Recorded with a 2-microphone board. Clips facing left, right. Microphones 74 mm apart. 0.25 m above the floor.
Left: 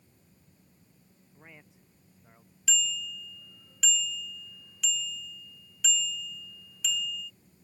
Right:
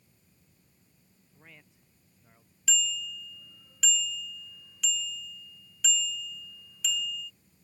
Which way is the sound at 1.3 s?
20° left (ahead or behind).